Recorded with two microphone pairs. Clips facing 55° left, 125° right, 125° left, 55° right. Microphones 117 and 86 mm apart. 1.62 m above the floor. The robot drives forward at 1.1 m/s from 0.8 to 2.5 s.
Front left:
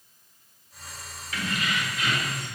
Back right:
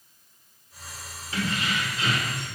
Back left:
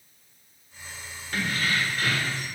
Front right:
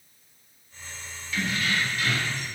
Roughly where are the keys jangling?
Behind.